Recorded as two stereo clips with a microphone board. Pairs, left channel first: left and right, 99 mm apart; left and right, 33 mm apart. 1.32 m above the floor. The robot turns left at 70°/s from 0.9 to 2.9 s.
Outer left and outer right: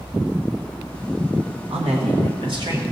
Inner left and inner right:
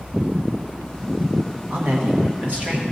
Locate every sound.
1.7 s a man speaking: 70° right, 1.1 m; by 2.8 s 145° right, 1.1 m